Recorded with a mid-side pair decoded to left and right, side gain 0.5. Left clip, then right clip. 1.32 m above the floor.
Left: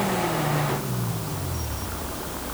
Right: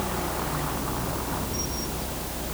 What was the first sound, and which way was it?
Only background noise.